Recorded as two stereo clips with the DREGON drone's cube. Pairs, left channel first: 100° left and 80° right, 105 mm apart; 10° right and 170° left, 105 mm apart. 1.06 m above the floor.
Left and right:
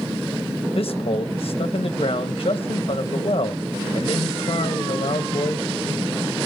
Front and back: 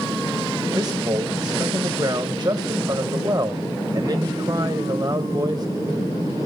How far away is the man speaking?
About 0.9 m.